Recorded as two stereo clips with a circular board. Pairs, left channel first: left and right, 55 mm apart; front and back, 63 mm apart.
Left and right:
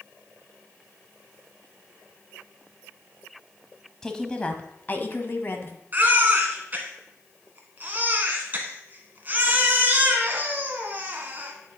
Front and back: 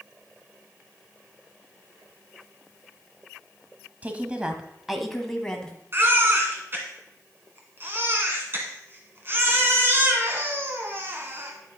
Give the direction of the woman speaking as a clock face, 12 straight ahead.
7 o'clock.